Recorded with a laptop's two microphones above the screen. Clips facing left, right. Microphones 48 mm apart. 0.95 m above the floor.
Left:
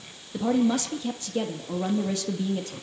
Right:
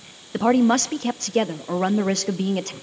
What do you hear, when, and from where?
0.3 s a woman speaking: 65° right (ahead or behind), 1.1 m